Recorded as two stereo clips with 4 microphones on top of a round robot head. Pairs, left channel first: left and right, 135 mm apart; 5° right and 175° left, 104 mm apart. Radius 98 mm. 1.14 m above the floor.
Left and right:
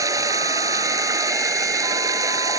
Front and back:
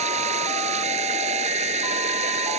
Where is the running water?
155° right.